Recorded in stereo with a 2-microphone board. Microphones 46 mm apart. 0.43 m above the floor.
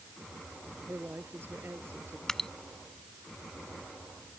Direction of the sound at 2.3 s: 10° left (ahead or behind).